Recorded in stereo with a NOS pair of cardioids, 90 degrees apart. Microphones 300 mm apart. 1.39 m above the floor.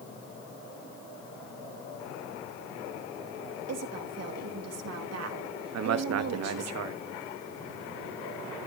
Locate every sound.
3.7 s a woman speaking: 55° right, 3 m
5.7 s a man speaking: 60° right, 1.4 m